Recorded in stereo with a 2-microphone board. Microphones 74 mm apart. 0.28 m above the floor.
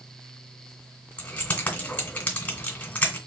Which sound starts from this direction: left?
Keys jangling, at 1.2 s.